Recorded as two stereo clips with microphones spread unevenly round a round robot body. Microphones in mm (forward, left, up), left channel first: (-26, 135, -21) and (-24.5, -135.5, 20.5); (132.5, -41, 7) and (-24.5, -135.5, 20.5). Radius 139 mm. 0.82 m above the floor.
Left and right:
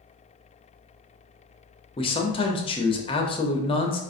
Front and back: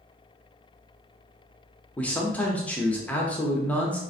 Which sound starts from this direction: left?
A man speaking, at 2.0 s.